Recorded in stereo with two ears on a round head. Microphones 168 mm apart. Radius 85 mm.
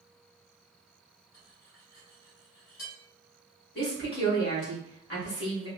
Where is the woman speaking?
60° left (ahead or behind), 1.8 m.